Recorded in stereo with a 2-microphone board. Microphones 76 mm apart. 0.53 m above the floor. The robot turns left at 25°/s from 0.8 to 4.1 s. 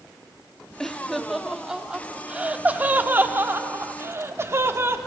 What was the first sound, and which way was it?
Laughter, 5° left (ahead or behind).